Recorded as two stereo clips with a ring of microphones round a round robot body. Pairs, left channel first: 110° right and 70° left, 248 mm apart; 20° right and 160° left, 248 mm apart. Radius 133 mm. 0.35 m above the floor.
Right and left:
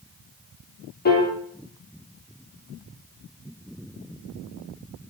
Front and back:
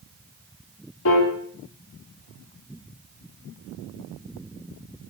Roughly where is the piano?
Ahead right.